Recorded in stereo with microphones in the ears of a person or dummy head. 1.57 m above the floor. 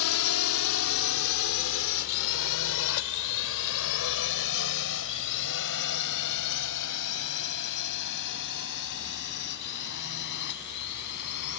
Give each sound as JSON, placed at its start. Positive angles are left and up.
{"t": 0.0, "sound": "a drone", "side_deg": 85}